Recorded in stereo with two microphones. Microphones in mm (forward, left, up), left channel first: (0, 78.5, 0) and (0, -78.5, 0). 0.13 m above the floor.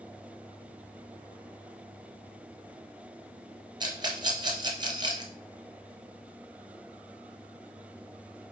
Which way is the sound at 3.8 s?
30° right (ahead or behind).